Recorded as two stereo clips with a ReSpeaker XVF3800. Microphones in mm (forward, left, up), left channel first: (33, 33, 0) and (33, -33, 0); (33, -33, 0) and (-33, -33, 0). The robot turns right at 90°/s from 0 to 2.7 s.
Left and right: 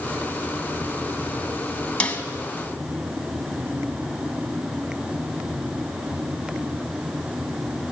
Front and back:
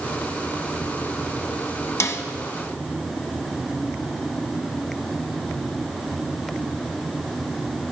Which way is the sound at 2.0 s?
25° left.